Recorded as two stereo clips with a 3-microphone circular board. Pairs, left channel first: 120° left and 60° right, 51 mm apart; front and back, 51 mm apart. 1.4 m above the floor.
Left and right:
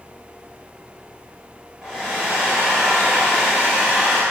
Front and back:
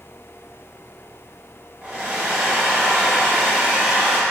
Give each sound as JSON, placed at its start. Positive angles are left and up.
{"t": 1.8, "sound": "a hair dryer", "azimuth_deg": -130, "distance_m": 1.9}